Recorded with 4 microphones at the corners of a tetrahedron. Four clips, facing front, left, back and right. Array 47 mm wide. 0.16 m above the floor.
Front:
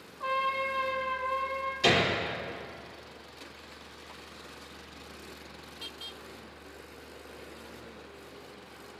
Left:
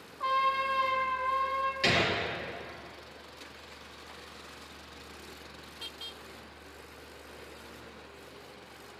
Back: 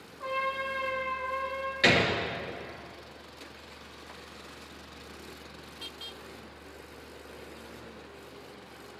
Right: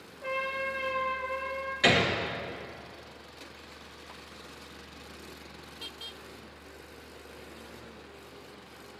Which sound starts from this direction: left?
A trumpet, at 0.2 s.